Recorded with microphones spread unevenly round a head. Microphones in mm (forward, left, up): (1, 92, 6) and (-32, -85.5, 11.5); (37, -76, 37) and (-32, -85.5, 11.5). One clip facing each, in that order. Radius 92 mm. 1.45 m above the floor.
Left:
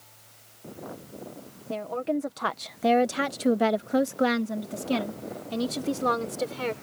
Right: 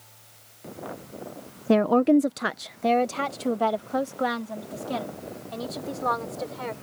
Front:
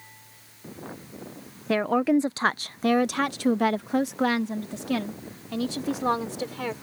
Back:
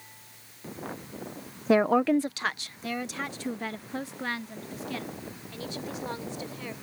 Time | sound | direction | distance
1.7 | a woman speaking | 100° right | ?